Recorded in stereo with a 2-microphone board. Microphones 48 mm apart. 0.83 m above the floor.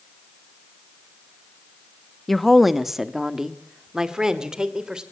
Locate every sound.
2.3 s a woman speaking: centre (ahead or behind), 0.9 m; by 5.0 s 20° right (ahead or behind), 3 m